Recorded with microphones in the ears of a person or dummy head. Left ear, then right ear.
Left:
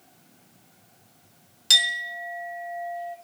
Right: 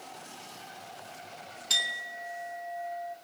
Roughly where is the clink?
Left.